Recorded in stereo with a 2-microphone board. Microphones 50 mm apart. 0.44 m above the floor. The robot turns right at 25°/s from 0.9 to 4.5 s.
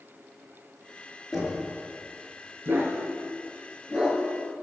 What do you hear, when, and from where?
1.3 s knocking: centre (ahead or behind), 4.5 m; by 1.7 s 5° left (ahead or behind), 4.5 m
2.6 s a dog barking: 55° right (ahead or behind), 2.5 m; by 4.2 s 15° right (ahead or behind), 2.5 m